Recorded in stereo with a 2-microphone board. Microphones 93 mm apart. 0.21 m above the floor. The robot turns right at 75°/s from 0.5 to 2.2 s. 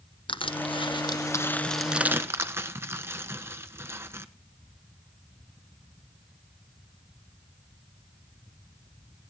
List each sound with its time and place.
0.3 s crushing: 65° left (ahead or behind), 1.2 m; by 4.3 s 25° right (ahead or behind), 1.2 m